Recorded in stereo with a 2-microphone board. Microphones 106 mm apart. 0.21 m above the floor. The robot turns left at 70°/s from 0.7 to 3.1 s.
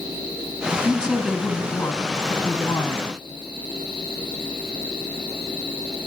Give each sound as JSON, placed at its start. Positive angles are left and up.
{"t": 0.8, "sound": "a woman speaking", "azimuth_deg": -145, "distance_m": 1.4}